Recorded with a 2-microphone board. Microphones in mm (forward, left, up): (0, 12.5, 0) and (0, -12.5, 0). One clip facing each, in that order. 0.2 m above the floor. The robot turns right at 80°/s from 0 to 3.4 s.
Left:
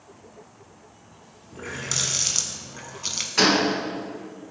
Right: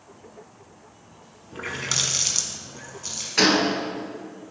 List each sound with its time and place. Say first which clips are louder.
1.5 s a running tap: right 3 dB; 60° right, 1.0 m; by 3.3 s 80° left, 1.0 m
3.4 s a gunshot: even; 10° right (ahead or behind), 1.5 m; by 3.7 s 5° right (ahead or behind), 1.5 m